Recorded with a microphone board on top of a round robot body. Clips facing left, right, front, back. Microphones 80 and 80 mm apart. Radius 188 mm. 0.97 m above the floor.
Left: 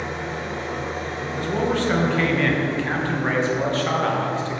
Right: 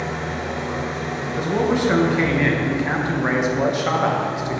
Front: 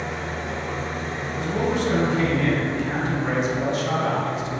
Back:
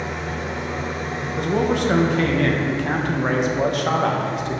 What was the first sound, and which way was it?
An engine running, 100° right.